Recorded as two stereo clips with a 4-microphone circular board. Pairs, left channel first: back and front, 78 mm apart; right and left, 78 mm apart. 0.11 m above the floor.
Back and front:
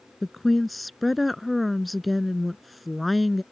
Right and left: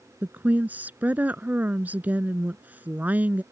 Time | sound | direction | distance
0.2 | a woman speaking | 90° left | ?